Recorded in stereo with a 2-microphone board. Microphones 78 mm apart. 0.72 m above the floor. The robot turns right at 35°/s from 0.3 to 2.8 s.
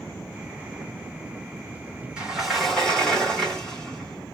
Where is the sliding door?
10° right (ahead or behind), 1.3 m; by 4.4 s 10° left (ahead or behind), 1.3 m.